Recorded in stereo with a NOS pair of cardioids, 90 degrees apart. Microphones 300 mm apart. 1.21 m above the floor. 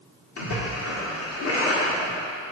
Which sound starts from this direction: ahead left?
A splash, at 0.4 s.